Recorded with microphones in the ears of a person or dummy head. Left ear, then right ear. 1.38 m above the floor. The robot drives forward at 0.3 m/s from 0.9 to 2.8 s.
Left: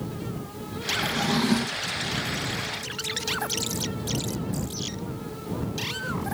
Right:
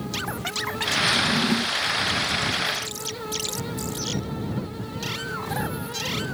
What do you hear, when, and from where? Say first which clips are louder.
1.1 s a drawer: right 3 dB; 10° left (ahead or behind), 0.6 m; by 1.9 s 5° left (ahead or behind), 0.8 m